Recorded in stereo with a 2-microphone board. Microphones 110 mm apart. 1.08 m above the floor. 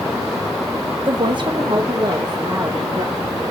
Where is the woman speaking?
50° right (ahead or behind), 0.9 m; by 3.2 s 35° right (ahead or behind), 2 m.